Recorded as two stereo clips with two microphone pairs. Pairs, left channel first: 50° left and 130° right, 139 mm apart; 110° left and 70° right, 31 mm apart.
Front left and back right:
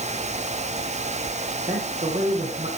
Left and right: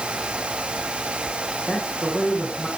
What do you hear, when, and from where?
1.7 s a man speaking: 155° right, 9 m